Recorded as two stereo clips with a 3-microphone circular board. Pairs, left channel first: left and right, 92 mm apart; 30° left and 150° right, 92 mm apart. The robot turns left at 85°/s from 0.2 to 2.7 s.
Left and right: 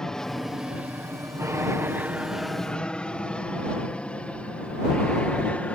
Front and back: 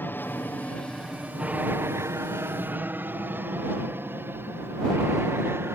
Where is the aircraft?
15° left; by 5.8 s 160° left.